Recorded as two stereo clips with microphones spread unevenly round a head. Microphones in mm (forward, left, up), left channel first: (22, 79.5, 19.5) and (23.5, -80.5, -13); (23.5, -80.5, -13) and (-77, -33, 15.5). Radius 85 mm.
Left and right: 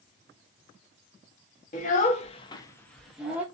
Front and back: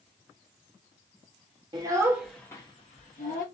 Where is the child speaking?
115° left, 0.7 m; by 3.4 s 5° right, 0.8 m.